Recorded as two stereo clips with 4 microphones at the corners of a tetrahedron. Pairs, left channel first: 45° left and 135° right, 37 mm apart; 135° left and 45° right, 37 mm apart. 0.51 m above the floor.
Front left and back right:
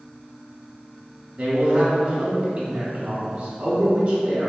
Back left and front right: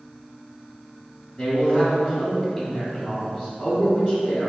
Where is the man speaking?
175° left, 1.0 m.